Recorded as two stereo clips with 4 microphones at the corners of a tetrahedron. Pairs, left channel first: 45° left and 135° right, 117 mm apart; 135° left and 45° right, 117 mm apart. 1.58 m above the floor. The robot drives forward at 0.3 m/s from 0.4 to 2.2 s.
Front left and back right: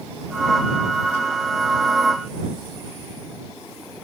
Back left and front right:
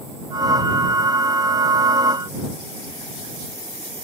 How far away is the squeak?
No squeak in this recording.